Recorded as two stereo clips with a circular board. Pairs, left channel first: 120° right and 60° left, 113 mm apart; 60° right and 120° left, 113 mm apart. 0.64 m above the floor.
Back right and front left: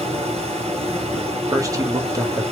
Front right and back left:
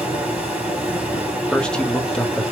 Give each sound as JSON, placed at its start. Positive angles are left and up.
{"t": 0.0, "sound": "running water", "azimuth_deg": 40, "distance_m": 2.0}
{"t": 1.5, "sound": "a man speaking", "azimuth_deg": 20, "distance_m": 1.3}